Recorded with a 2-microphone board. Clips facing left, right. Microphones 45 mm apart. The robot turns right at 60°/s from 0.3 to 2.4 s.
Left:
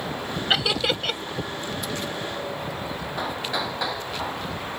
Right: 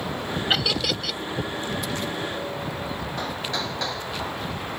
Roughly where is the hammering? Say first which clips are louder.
Left 3 dB; centre.